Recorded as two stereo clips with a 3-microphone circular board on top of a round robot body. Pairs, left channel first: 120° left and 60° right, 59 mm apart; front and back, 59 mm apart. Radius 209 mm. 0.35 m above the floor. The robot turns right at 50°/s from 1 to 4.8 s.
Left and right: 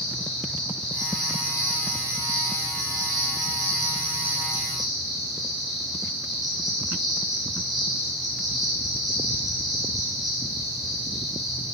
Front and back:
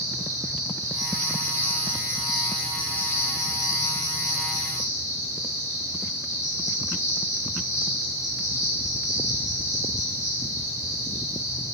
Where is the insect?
160° right, 1.3 m; by 11.8 s 30° left, 1.3 m.